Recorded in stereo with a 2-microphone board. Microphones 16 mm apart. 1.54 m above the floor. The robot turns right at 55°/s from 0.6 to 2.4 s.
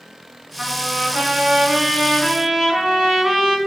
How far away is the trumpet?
About 5 m.